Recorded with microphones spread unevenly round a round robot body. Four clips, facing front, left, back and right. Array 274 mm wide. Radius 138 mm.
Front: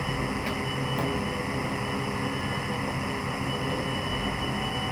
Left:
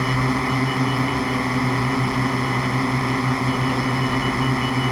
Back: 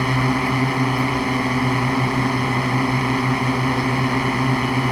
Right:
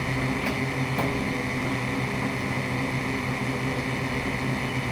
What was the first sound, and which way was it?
A drone, 150° left.